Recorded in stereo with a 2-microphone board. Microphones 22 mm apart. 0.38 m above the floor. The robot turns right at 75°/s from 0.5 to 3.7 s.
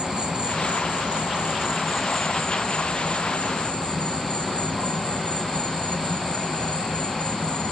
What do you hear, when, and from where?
0.0 s an insect: 115° right, 1.4 m; by 7.7 s 125° left, 1.4 m